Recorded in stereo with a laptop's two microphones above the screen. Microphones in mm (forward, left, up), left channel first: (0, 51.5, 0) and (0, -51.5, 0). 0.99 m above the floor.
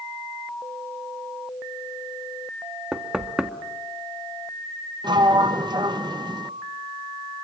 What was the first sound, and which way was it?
Knocking, 10° right (ahead or behind).